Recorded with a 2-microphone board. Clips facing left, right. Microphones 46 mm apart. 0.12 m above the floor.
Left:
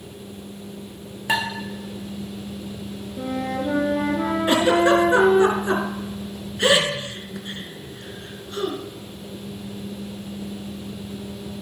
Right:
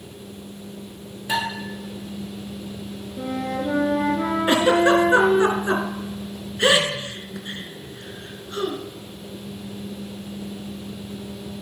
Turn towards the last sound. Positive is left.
turn(degrees=-25)  # may be behind; listen again after turning